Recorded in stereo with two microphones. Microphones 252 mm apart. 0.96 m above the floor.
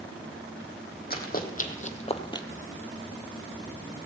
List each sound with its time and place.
1.1 s running footsteps: 40° left (ahead or behind), 1.8 m; by 2.5 s 15° left (ahead or behind), 1.0 m